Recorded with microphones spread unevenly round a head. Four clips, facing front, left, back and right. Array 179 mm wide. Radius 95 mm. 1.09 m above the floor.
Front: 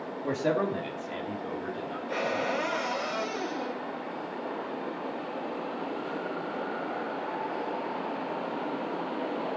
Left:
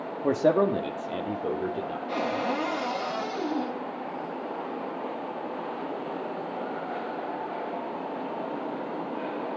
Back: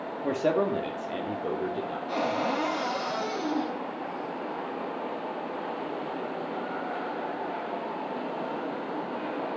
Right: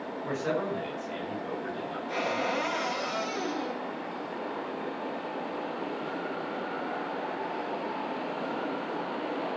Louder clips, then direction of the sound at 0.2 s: Left 9 dB, back 2 dB; 100° left.